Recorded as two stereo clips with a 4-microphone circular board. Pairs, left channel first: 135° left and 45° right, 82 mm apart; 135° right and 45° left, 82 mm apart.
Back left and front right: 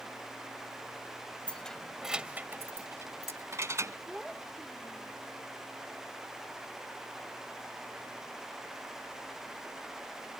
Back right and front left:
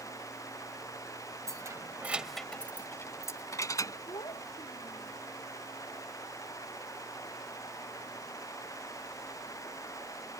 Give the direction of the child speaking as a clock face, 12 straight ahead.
4 o'clock.